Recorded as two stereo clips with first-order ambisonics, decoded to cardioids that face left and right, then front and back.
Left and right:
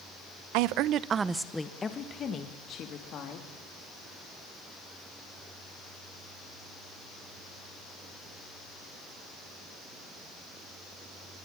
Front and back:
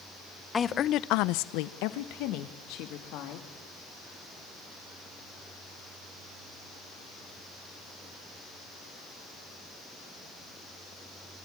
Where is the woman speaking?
75° right, 0.8 m; by 3.5 s 40° left, 2.5 m.